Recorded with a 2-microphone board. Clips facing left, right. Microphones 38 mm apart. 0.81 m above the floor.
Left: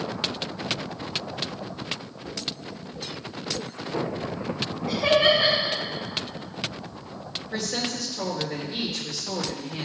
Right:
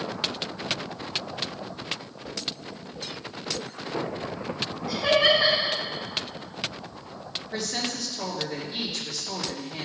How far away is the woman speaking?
About 3.5 m.